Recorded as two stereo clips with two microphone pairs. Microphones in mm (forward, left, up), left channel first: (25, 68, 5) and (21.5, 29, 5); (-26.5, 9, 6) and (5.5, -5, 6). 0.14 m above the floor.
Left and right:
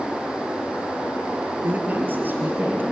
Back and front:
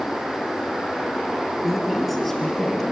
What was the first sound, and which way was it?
A woman speaking, 105° right.